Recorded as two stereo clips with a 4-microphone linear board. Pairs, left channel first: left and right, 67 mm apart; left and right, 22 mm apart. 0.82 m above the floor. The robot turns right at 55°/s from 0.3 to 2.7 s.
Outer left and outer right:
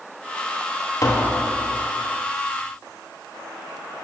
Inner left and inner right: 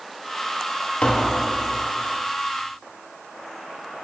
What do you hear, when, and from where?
1.0 s tapping: 55° left (ahead or behind), 1.1 m; by 1.4 s 50° left (ahead or behind), 1.1 m